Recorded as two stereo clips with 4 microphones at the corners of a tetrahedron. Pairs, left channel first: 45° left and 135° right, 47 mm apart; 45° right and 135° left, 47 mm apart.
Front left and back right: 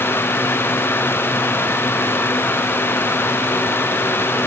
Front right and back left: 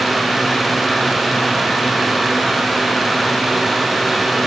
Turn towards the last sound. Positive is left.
No sound to turn to.